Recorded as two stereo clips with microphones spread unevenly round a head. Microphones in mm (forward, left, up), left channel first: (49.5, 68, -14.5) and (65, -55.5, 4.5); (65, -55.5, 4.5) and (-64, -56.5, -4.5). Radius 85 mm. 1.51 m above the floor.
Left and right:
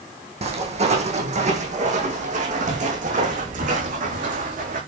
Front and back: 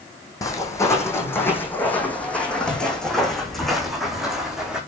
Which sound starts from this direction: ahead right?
Footsteps, at 0.4 s.